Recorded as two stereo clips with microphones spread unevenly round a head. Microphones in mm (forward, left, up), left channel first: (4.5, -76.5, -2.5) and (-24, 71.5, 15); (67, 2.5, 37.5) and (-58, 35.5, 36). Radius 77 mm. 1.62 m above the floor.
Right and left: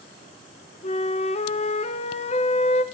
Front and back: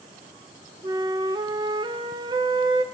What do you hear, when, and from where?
0.8 s a flute: 130° right, 0.5 m